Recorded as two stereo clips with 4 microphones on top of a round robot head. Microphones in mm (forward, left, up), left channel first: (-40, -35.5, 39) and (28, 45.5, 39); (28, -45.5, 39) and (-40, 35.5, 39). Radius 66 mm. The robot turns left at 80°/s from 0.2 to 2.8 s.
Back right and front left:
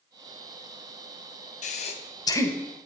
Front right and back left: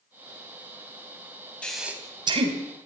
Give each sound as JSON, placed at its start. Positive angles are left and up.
{"t": 1.6, "sound": "breathing", "azimuth_deg": -130, "distance_m": 2.5}